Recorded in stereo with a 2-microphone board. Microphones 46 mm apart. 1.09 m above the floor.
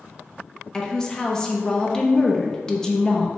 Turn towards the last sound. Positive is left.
turn(degrees=15)  # may be behind; listen again after turning